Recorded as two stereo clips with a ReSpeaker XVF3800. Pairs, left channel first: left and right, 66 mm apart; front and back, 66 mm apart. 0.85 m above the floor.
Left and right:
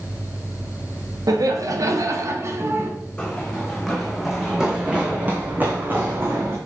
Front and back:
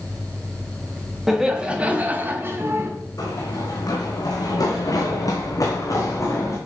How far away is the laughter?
About 1.6 m.